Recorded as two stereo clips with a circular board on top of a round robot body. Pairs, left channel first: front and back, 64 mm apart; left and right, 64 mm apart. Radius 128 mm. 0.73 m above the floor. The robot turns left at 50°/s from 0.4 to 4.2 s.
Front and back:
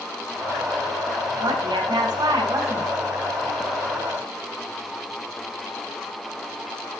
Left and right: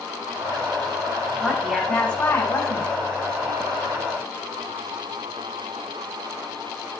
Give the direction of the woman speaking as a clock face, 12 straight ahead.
6 o'clock.